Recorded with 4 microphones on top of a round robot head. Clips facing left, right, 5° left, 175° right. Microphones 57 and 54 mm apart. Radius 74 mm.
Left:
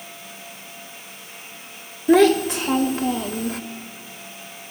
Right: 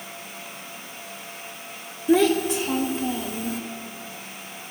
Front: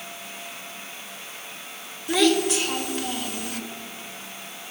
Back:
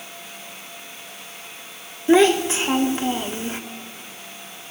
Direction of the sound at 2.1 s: 125° left.